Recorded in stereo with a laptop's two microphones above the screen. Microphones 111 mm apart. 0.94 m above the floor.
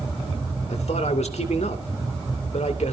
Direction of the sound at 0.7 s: 80° left.